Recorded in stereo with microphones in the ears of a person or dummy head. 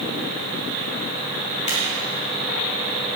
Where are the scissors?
35° left (ahead or behind), 3 m.